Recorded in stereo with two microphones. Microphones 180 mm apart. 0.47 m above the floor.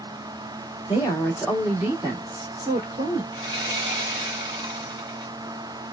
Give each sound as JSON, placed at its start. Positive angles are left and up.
{"t": 0.9, "sound": "a woman speaking", "side_deg": 25, "distance_m": 0.9}
{"t": 3.3, "sound": "sawing", "side_deg": -30, "distance_m": 1.6}